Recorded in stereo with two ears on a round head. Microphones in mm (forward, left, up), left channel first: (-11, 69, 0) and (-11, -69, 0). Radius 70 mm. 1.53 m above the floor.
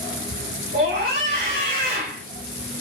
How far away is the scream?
About 1.6 m.